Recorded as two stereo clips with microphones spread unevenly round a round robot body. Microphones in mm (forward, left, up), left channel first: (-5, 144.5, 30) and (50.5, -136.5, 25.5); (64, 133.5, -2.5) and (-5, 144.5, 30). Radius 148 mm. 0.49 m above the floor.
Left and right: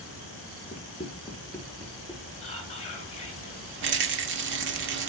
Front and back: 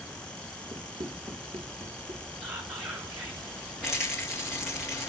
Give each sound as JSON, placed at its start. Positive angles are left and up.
{"t": 0.7, "sound": "running footsteps", "azimuth_deg": 170, "distance_m": 2.5}
{"t": 2.4, "sound": "whispering", "azimuth_deg": 170, "distance_m": 5.5}
{"t": 3.8, "sound": "a rattle", "azimuth_deg": -75, "distance_m": 1.4}